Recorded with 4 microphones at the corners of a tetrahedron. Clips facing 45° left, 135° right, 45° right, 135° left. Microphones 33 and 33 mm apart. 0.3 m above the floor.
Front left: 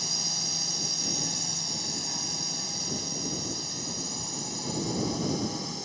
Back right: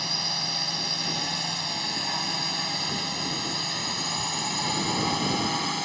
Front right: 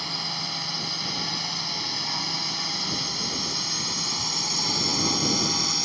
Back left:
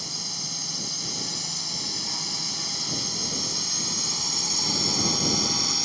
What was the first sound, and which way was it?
A drone, 90° right.